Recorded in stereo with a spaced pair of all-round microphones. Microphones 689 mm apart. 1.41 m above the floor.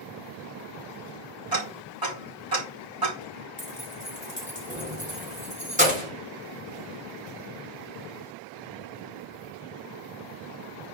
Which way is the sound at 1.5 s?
30° right (ahead or behind).